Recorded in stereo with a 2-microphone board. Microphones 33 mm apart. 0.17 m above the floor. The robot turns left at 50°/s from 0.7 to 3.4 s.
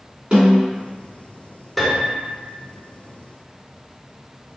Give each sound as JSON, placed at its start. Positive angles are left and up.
{"t": 0.3, "sound": "a snare drum", "side_deg": -35, "distance_m": 1.9}
{"t": 1.8, "sound": "a piano", "side_deg": 0, "distance_m": 0.9}